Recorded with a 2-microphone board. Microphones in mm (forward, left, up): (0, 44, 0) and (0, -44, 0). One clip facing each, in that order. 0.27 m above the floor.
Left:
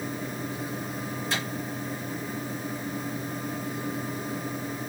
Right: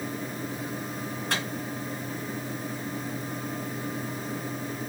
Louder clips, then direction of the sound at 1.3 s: Right 1 dB; 65° right (ahead or behind).